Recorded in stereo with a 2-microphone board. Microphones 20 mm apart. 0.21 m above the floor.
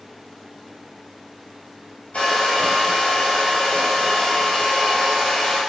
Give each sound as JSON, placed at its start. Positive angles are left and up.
{"t": 2.1, "sound": "a hair dryer", "side_deg": 75, "distance_m": 1.2}